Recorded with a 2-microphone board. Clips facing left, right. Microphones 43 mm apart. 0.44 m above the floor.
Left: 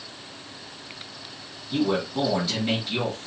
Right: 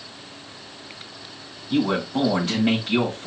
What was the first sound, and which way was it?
A man speaking, 65° right (ahead or behind).